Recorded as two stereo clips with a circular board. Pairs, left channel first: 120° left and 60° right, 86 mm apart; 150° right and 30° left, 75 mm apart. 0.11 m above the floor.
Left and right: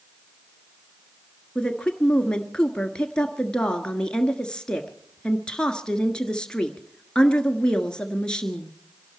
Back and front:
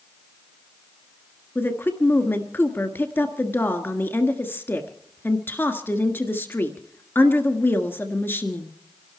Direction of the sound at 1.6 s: 170° right.